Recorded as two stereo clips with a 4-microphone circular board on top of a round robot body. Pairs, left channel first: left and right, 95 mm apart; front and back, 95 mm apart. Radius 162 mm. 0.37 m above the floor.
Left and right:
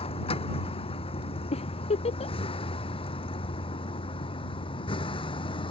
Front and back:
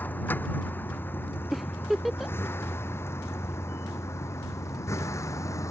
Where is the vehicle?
70° left; by 5.7 s 60° left.